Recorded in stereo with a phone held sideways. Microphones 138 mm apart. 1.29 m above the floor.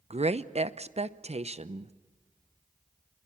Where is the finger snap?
No finger snap in this recording.